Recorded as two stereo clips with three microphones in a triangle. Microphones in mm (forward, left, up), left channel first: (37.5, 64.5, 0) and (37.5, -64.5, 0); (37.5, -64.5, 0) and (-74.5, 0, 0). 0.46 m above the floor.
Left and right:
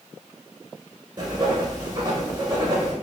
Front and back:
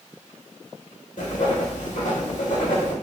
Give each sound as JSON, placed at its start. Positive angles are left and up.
{"t": 1.2, "sound": "writing", "azimuth_deg": -35, "distance_m": 1.0}